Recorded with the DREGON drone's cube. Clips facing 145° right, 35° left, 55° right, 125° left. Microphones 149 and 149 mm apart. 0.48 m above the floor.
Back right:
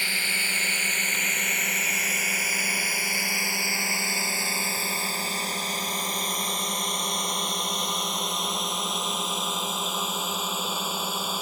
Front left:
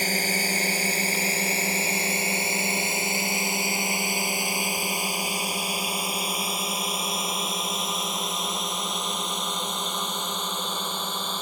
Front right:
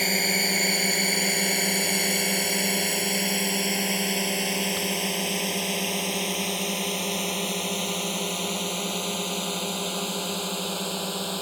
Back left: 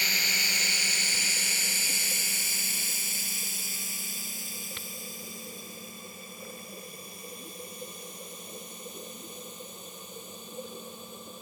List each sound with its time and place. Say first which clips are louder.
0.0 s a drone: front left 8 dB, front right 12 dB; 15° right; by 11.4 s 60° right